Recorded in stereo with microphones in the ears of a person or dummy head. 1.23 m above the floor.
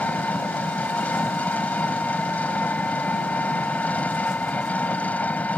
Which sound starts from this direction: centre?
An engine running, at 0.0 s.